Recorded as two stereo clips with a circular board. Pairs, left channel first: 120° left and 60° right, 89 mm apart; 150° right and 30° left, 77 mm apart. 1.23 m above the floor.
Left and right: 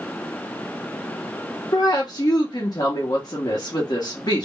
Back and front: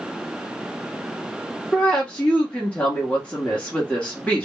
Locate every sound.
1.7 s a woman speaking: 140° left, 0.9 m